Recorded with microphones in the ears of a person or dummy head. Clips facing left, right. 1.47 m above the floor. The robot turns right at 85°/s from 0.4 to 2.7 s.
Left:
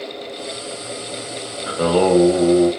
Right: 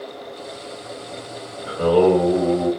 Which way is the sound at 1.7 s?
75° left.